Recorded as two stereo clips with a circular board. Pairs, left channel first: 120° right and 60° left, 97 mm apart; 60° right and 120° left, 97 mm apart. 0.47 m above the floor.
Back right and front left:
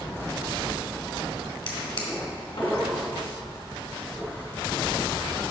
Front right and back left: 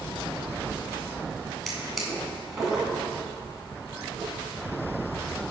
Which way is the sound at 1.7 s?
150° right.